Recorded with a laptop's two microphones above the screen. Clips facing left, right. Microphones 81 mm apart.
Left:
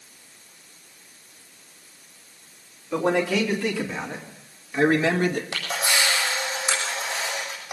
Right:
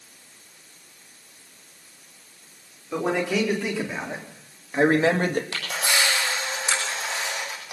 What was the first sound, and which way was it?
A man speaking, centre (ahead or behind).